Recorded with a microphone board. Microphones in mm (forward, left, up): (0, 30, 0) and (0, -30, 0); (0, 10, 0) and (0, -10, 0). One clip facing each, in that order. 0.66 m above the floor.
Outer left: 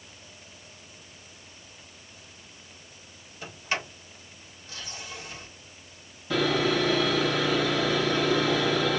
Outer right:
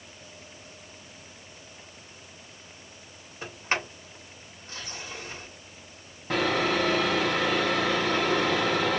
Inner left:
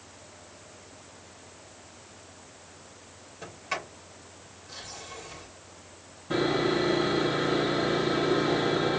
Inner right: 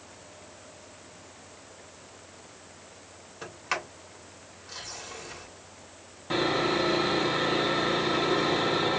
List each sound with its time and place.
3.4 s a sliding door: 40° right (ahead or behind), 2.5 m
6.3 s sawing: 50° right (ahead or behind), 3 m